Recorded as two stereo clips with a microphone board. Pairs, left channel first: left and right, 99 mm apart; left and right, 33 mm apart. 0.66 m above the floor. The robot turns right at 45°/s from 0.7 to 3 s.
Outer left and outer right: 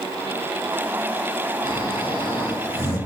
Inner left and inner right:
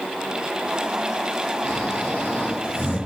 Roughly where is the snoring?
Ahead.